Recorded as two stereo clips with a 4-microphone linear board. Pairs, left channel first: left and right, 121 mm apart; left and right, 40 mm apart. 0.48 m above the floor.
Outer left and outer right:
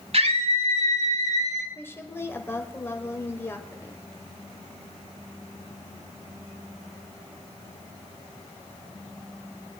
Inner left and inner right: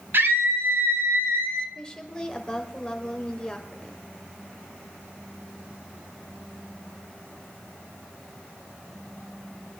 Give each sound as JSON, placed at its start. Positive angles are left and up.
{"t": 0.1, "sound": "a scream", "side_deg": -60, "distance_m": 2.5}
{"t": 1.8, "sound": "a woman speaking", "side_deg": 20, "distance_m": 1.8}